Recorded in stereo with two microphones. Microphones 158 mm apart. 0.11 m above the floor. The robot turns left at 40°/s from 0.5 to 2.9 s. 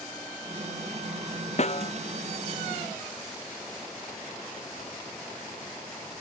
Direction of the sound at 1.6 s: 45° left (ahead or behind).